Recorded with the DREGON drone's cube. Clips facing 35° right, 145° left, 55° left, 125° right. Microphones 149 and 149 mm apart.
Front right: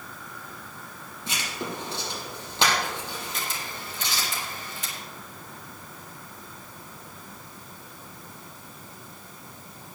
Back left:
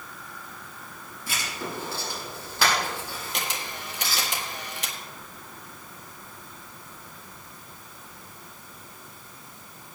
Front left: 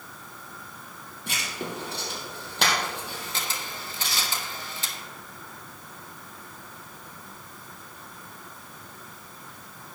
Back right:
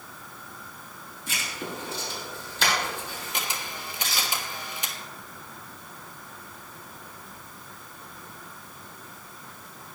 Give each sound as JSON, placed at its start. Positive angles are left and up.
{"t": 1.3, "sound": "writing", "azimuth_deg": 35, "distance_m": 4.0}
{"t": 3.3, "sound": "a camera shutter", "azimuth_deg": 160, "distance_m": 1.4}